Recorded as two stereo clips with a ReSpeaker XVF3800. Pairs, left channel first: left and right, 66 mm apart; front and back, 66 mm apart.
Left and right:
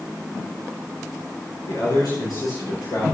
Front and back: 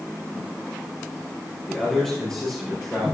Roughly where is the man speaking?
Left.